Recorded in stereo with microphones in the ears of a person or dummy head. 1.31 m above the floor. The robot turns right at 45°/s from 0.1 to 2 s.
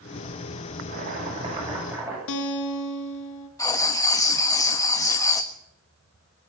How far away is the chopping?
About 9 m.